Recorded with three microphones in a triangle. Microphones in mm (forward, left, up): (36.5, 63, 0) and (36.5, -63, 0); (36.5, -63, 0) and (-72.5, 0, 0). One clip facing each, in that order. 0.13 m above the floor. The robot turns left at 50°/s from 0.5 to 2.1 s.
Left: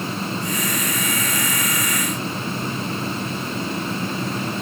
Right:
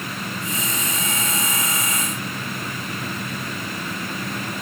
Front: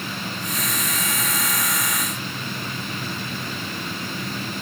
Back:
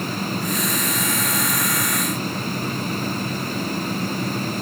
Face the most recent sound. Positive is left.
No sound to turn to.